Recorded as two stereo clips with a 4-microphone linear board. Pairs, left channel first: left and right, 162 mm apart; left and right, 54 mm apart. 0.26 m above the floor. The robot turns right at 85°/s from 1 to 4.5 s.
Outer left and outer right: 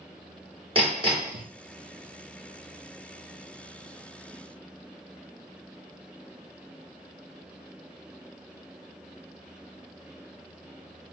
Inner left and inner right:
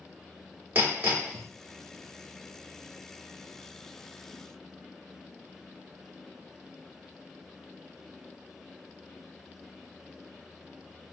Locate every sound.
0.8 s hammering: 35° right, 1.9 m; by 1.5 s straight ahead, 1.9 m